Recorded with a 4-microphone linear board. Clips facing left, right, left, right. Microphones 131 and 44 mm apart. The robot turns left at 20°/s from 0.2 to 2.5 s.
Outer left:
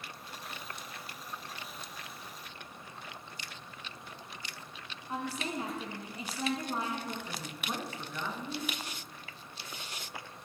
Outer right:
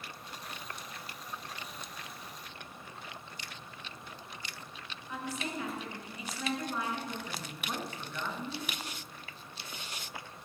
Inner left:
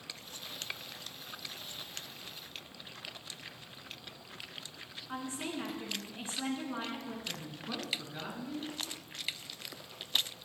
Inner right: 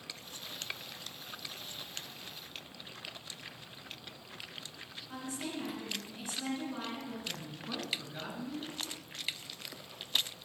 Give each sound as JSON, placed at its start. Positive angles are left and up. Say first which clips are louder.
{"t": 5.1, "sound": "a woman speaking", "louder": "outer left 2 dB, inner left 2 dB", "side_deg": 35, "distance_m": 3.0}
{"t": 7.3, "sound": "a woman speaking", "louder": "outer left 1 dB, even", "side_deg": 5, "distance_m": 3.0}